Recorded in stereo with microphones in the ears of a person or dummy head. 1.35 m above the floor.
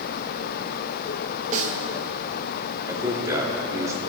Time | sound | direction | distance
1.5 | a snare drum | 50° right (ahead or behind) | 1.5 m
2.9 | a man speaking | 25° right (ahead or behind) | 3 m